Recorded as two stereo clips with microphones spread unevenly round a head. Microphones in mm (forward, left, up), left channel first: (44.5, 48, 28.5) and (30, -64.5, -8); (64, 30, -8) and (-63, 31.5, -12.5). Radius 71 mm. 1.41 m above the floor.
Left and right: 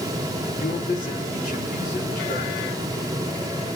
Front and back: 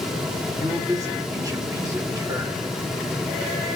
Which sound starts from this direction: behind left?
A man speaking, at 0.6 s.